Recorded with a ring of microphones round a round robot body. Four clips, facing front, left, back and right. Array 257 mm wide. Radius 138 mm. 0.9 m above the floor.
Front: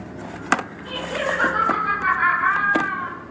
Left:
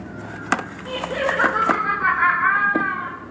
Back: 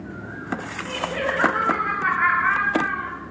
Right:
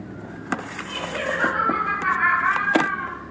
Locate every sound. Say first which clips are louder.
0.8 s laughter: left 5 dB, even; 100° left, 4.5 m; by 3.1 s 90° left, 5.5 m